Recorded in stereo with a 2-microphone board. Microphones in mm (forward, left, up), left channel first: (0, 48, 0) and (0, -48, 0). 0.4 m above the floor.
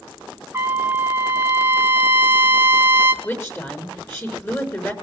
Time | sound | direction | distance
0.5 | a trumpet | 25° right (ahead or behind) | 1.7 m
3.2 | a woman speaking | 25° left (ahead or behind) | 5.5 m